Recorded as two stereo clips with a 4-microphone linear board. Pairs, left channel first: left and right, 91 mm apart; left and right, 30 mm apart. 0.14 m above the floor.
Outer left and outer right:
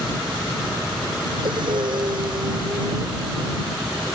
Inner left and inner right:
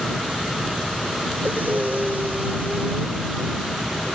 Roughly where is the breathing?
Right.